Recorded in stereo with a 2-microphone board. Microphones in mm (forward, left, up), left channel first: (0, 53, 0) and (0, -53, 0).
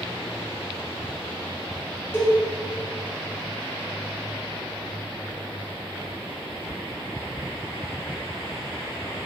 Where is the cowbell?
20° left (ahead or behind), 0.8 m.